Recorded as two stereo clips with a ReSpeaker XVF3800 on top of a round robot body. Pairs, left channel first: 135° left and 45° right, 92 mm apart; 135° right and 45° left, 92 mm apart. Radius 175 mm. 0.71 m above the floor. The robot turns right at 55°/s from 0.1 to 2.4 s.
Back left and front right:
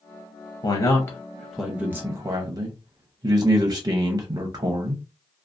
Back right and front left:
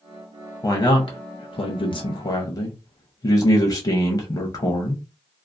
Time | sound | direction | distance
0.6 | a man speaking | 170° left | 0.7 m